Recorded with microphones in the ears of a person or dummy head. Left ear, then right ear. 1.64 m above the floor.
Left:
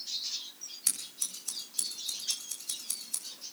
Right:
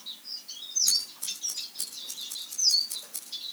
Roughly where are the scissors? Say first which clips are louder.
Right 4 dB; left.